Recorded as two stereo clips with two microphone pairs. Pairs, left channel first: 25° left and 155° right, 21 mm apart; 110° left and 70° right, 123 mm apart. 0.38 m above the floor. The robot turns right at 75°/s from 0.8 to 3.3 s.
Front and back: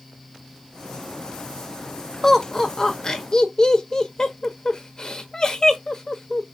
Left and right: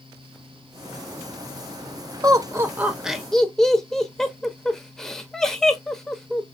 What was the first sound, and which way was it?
Laughter, 50° right.